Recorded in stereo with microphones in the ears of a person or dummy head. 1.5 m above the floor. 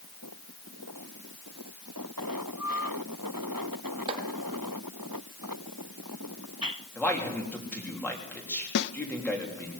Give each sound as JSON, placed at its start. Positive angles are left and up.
{"t": 4.1, "sound": "chopping", "side_deg": -30, "distance_m": 2.0}
{"t": 7.0, "sound": "a man speaking", "side_deg": 10, "distance_m": 3.5}
{"t": 8.8, "sound": "a snare drum", "side_deg": 55, "distance_m": 0.7}